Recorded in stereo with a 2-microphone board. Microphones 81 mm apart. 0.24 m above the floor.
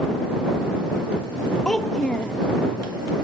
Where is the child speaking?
10° left (ahead or behind).